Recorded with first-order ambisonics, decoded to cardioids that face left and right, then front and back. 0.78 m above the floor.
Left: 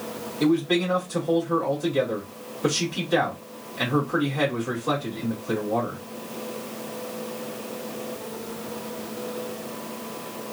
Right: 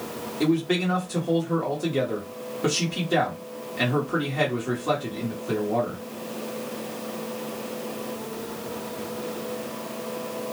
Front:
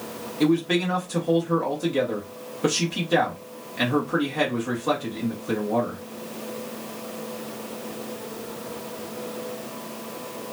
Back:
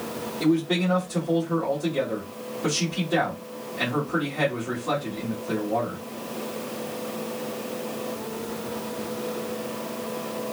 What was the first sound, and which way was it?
A man speaking, 35° right.